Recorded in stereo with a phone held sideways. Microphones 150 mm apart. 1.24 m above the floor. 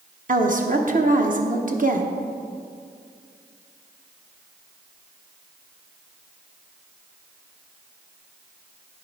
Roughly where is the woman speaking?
Right.